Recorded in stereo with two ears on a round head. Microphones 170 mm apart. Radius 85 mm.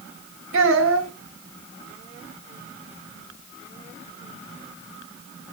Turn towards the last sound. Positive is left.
turn(degrees=-75)  # may be behind; listen again after turning